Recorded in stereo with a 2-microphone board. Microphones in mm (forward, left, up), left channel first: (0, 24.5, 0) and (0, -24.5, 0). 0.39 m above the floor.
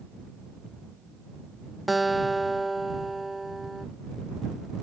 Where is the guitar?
Centre (ahead or behind).